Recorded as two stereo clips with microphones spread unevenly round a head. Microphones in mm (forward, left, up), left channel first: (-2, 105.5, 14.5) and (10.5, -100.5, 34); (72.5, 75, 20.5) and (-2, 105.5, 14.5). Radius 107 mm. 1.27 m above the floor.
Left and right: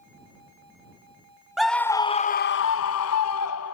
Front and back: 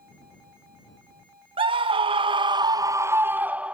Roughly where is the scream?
Behind.